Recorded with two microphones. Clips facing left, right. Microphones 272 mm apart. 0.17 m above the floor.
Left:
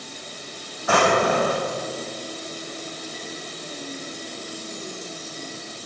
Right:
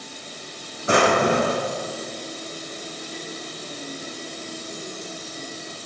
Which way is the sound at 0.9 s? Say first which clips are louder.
Right 1 dB; 25° right (ahead or behind).